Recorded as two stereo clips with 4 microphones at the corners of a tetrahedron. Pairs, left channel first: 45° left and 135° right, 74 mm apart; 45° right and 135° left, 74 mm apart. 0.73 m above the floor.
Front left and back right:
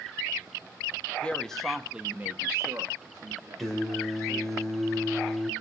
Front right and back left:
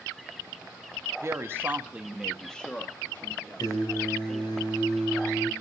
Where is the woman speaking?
115° left, 1.2 m; by 4.6 s 95° right, 3 m.